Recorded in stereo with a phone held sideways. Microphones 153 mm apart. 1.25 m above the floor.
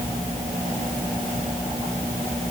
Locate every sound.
Only background noise.